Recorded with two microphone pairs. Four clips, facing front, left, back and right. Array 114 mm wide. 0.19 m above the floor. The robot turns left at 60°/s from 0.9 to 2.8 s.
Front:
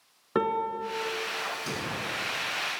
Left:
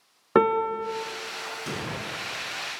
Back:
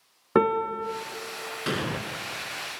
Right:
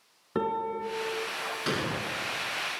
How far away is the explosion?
About 1.0 m.